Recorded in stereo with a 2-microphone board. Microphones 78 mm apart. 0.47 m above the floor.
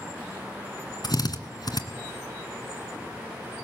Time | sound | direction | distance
1.0 | a drill | 65° left (ahead or behind) | 2 m